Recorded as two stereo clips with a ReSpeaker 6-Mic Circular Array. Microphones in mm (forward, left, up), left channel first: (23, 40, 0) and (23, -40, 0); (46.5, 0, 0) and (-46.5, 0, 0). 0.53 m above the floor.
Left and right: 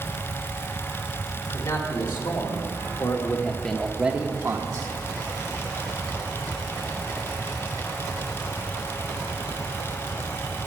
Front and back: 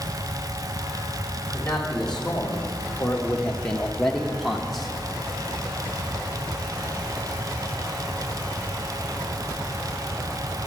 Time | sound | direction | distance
1.5 | a man speaking | 80° left | 2 m